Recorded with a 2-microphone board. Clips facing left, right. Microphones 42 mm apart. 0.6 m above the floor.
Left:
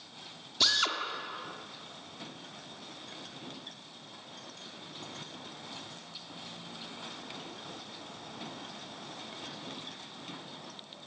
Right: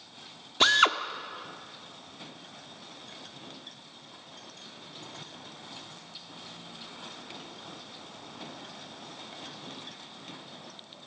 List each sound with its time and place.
0.6 s a drill: 45° right (ahead or behind), 1.4 m